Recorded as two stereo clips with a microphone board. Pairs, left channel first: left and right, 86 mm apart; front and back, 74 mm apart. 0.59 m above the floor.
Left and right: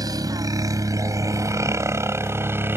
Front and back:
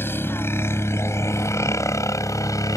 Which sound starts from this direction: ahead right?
A helicopter, at 0.0 s.